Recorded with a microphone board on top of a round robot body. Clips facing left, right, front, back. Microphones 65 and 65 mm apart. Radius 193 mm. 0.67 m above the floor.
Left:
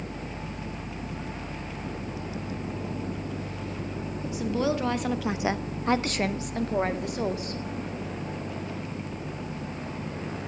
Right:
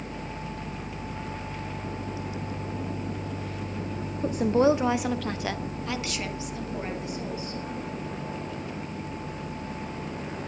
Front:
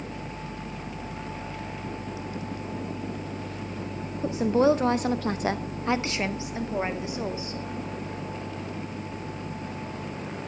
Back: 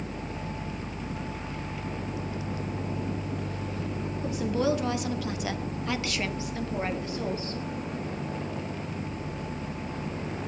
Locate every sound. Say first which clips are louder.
4.2 s a woman speaking: right 6 dB, front 6 dB; 60° right, 1.2 m; by 7.6 s 75° left, 2.5 m